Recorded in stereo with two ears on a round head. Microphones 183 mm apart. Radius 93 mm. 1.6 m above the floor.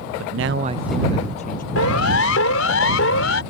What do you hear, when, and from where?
0.2 s a man speaking: 75° right (ahead or behind); by 1.6 s 40° left (ahead or behind)
1.8 s a siren: 75° left (ahead or behind); by 3.4 s 65° left (ahead or behind)